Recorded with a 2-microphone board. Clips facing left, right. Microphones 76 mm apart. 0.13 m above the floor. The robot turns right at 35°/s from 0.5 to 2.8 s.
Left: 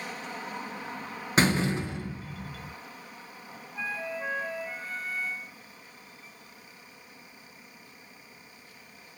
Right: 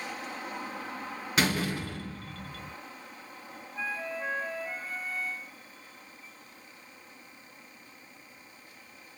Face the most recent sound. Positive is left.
turn(degrees=0)  # may be behind; listen again after turning